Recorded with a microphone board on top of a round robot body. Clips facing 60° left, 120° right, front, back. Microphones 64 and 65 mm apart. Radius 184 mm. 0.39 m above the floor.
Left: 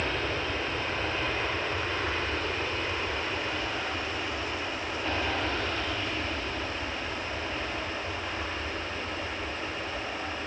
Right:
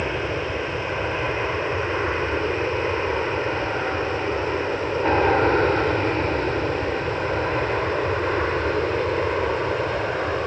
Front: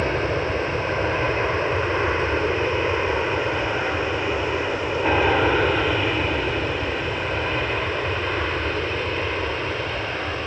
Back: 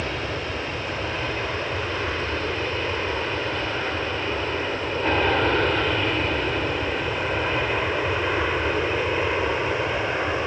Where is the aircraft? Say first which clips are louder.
Right 5 dB, front 6 dB; 55° right; by 10.5 s 110° right.